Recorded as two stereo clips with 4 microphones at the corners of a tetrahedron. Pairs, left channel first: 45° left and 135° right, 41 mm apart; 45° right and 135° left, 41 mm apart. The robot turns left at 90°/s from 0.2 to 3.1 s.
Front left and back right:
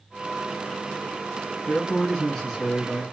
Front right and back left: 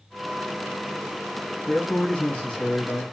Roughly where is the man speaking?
Ahead.